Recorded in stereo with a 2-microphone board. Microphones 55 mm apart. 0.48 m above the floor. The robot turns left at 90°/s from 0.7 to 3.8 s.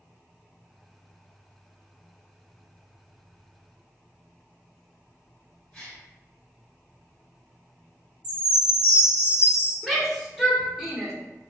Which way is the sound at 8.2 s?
35° right (ahead or behind).